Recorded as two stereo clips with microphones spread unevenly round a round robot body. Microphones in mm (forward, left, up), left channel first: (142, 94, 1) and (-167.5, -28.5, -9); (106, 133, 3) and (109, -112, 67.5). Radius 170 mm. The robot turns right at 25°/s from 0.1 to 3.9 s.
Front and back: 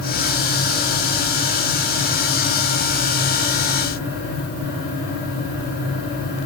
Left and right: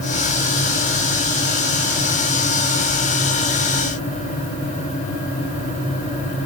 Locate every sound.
Only background noise.